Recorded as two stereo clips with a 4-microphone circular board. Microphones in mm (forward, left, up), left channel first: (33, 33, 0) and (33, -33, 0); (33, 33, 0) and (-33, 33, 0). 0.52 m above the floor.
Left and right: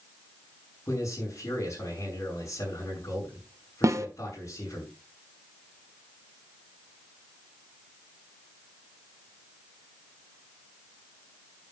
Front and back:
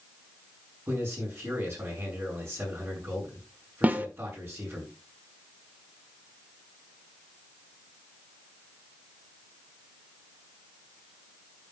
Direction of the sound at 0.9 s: 130° left.